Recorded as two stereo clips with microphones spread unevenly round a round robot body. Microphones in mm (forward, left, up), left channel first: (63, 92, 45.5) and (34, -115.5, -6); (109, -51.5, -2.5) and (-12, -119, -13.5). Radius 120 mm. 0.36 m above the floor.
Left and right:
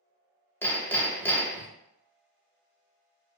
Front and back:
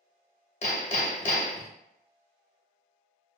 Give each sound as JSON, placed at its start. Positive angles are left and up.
{"t": 0.6, "sound": "hammering", "azimuth_deg": -5, "distance_m": 0.7}